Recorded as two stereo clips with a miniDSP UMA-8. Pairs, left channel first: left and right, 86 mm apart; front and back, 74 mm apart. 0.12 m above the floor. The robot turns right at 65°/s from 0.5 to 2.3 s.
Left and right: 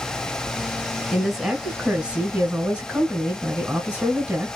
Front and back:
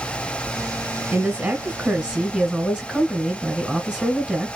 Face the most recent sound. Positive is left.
turn(degrees=-110)